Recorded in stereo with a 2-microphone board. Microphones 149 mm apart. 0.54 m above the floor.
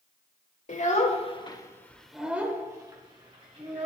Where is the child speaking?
55° left (ahead or behind), 1.2 m; by 3.9 s 45° right (ahead or behind), 1.8 m.